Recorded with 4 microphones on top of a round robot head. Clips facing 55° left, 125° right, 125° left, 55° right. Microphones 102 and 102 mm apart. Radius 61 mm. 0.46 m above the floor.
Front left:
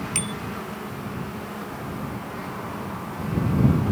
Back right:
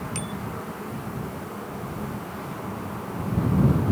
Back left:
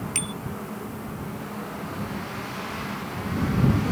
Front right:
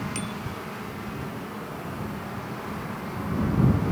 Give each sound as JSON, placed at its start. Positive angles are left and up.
{"t": 0.1, "sound": "a bicycle bell", "azimuth_deg": 90}